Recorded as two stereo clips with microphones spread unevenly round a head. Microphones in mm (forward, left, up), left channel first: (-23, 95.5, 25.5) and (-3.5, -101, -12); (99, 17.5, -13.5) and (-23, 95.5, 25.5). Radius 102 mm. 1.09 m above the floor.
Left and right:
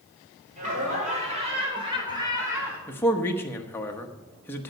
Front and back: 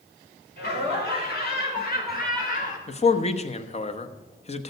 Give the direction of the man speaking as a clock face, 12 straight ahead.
12 o'clock.